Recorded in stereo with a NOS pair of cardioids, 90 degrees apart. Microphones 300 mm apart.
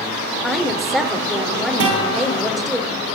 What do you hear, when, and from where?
0.4 s a woman speaking: straight ahead, 3.5 m
1.8 s a guitar: 55° right, 8.5 m